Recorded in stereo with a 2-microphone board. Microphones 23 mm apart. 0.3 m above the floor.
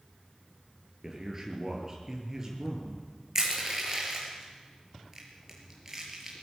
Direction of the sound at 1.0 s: 20° right (ahead or behind).